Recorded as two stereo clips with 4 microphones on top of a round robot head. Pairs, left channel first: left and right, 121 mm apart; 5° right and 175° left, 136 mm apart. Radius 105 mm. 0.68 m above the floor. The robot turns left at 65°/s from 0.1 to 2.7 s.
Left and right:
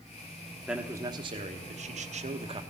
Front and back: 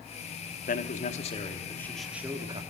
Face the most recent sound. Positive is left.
turn(degrees=-135)